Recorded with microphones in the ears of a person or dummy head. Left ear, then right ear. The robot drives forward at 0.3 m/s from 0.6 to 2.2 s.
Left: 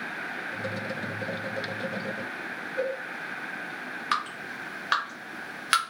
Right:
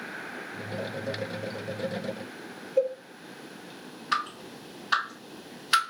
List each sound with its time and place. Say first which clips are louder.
2.8 s a cowbell: right 5 dB; 55° right (ahead or behind), 0.9 m
4.1 s dripping: right 1 dB; 45° left (ahead or behind), 0.9 m